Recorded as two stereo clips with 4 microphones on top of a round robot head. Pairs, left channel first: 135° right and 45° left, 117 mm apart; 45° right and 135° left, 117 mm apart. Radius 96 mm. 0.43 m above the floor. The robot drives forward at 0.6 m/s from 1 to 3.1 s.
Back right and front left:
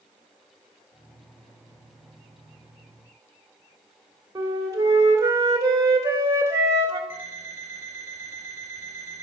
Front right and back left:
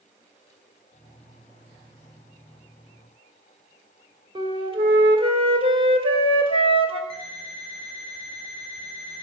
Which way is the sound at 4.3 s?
105° left.